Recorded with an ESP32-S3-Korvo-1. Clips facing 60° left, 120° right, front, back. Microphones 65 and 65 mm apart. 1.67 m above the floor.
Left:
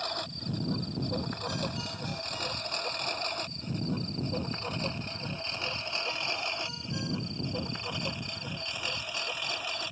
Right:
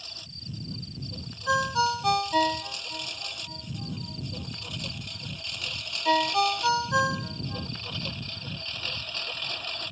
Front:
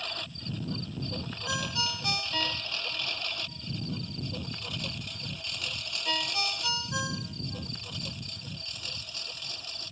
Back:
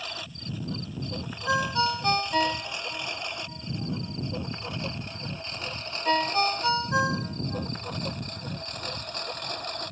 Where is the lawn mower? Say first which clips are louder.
Left 11 dB, back 1 dB; 95° left; by 9.9 s 145° left.